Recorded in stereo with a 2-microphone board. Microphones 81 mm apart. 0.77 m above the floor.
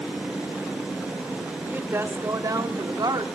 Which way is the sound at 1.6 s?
25° right (ahead or behind).